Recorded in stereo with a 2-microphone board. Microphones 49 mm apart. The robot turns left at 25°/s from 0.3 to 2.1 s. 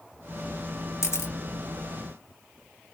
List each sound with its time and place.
1.0 s a camera shutter: 70° left (ahead or behind), 0.6 m